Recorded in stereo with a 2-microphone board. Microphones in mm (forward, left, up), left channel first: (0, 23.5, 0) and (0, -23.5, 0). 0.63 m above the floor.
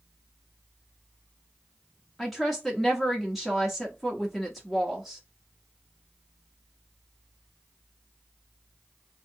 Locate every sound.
2.2 s a woman speaking: centre (ahead or behind), 0.7 m